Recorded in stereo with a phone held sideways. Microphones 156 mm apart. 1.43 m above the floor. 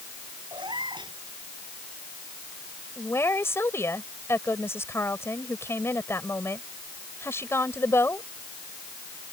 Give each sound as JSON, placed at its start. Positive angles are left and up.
{"t": 0.5, "sound": "a cat meowing", "side_deg": -30}
{"t": 3.0, "sound": "a woman speaking", "side_deg": 15}